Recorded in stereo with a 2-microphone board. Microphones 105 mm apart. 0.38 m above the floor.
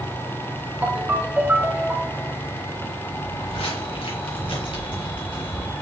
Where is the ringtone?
15° right (ahead or behind), 1.1 m.